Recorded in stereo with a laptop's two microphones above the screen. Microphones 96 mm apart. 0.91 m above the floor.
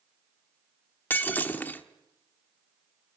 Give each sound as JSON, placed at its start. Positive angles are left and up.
{"t": 1.1, "sound": "breaking glass", "side_deg": 20, "distance_m": 0.9}